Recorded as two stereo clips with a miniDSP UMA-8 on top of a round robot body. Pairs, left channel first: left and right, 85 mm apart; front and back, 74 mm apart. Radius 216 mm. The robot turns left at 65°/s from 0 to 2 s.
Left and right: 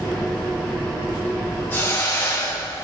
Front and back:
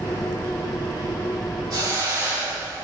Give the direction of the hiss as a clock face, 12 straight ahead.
7 o'clock.